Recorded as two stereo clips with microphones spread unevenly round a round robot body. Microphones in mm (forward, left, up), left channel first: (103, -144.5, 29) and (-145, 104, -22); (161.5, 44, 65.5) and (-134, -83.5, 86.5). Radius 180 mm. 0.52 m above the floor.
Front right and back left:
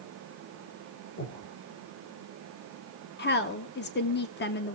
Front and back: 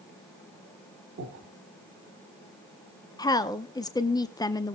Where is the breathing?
105° right, 2 m.